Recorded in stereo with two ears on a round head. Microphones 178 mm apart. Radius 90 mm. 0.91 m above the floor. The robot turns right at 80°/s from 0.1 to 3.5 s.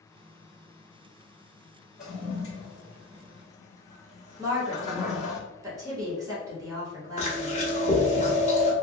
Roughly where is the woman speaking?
Centre.